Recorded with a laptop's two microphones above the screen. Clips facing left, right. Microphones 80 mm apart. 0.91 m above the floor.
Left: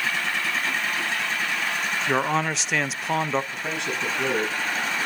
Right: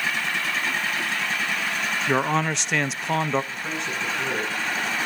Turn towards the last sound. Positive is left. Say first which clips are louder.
# left 1 dB
turn(degrees=75)  # may be behind; listen again after turning